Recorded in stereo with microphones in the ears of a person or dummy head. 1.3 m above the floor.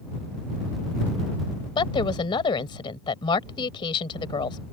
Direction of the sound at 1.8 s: 25° left (ahead or behind).